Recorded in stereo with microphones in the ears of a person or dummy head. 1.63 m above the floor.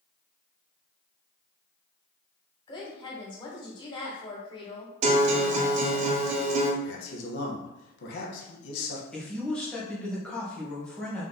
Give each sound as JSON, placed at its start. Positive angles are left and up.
{"t": 2.7, "sound": "a woman speaking", "side_deg": 25, "distance_m": 1.3}
{"t": 5.0, "sound": "a guitar", "side_deg": -35, "distance_m": 0.7}
{"t": 6.8, "sound": "a man speaking", "side_deg": 65, "distance_m": 1.2}
{"t": 9.1, "sound": "a man speaking", "side_deg": 5, "distance_m": 1.4}